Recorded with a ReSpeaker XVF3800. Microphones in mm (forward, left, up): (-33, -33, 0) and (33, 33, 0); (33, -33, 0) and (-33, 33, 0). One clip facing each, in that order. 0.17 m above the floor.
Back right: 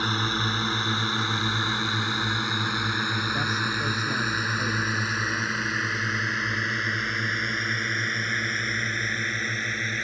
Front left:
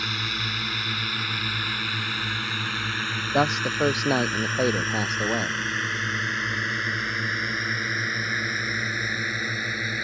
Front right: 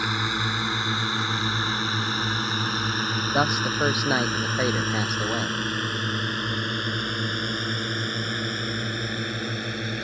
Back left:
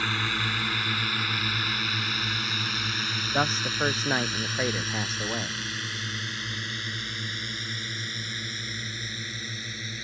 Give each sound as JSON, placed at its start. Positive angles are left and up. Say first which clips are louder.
{"t": 0.0, "sound": "a drone", "louder": "back right 5 dB, front right 3 dB", "azimuth_deg": -105}
{"t": 3.3, "sound": "a man speaking", "louder": "front left 5 dB, front right 3 dB", "azimuth_deg": 30}